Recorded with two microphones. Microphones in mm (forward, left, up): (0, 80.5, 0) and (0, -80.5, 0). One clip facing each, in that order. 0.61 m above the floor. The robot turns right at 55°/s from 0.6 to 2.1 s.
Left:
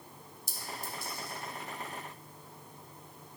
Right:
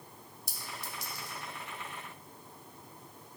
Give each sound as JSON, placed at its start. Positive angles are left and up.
{"t": 0.5, "sound": "a clink", "side_deg": -60, "distance_m": 1.3}